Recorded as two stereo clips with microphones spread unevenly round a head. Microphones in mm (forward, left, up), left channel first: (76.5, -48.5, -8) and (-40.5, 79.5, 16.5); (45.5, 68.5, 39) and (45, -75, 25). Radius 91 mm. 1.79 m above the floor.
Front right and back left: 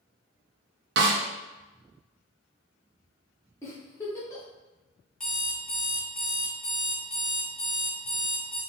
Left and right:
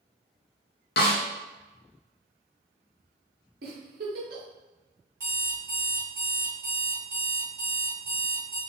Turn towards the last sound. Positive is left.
turn(degrees=-150)